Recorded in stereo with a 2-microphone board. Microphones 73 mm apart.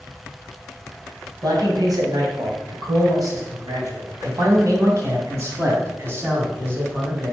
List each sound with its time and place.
1.4 s a man speaking: 60° right (ahead or behind), 3 m; by 7.3 s 30° right (ahead or behind), 3.5 m